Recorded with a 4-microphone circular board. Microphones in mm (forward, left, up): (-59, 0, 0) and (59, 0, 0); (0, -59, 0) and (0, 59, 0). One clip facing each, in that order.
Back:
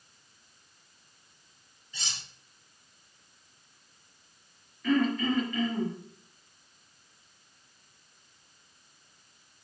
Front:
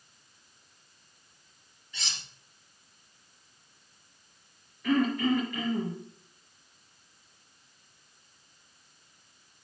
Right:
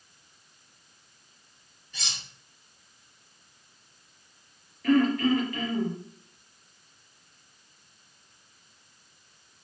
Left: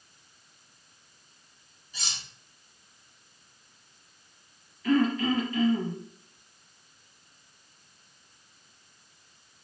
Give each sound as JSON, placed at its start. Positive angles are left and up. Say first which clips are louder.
{"t": 1.9, "sound": "cutlery clinking", "louder": "even, even", "azimuth_deg": -105, "distance_m": 2.5}
{"t": 4.8, "sound": "throat clearing", "louder": "even, right 2 dB", "azimuth_deg": -80, "distance_m": 4.0}